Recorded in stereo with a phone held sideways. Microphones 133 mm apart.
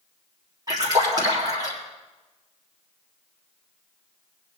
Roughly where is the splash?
Right.